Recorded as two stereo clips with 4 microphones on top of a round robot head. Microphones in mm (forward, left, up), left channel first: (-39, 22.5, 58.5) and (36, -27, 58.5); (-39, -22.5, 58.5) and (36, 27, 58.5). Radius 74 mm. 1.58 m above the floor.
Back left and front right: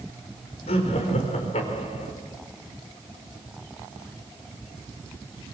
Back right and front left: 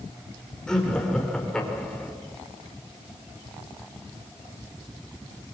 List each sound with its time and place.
0.7 s laughter: 130° left, 4.5 m